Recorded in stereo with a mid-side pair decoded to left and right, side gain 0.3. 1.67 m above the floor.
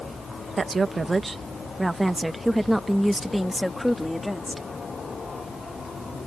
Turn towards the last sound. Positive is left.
turn(degrees=15)